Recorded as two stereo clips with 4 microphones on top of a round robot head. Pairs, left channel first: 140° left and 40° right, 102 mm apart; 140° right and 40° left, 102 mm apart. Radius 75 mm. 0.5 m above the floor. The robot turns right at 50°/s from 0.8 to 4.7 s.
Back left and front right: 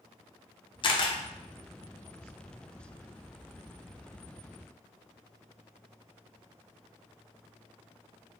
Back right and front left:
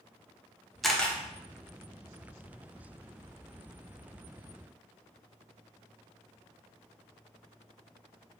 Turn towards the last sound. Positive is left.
turn(degrees=-35)